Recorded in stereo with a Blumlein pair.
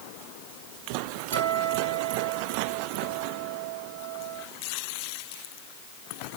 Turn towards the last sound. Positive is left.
turn(degrees=-70)